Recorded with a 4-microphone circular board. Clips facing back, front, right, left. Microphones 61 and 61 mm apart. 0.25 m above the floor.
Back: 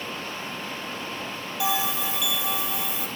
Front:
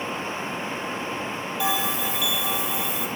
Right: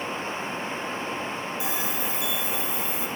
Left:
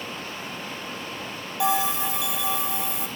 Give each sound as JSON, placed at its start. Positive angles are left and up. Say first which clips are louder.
{"t": 1.6, "sound": "a bell", "louder": "even, left 6 dB", "azimuth_deg": 90, "distance_m": 1.4}